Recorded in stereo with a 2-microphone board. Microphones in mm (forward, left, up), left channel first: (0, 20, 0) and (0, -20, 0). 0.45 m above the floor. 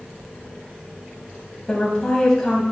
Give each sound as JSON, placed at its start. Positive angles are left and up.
{"t": 1.7, "sound": "a woman speaking", "side_deg": 15, "distance_m": 2.0}